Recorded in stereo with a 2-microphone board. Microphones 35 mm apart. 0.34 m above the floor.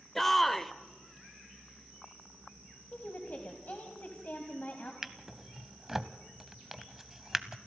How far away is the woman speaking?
About 2 m.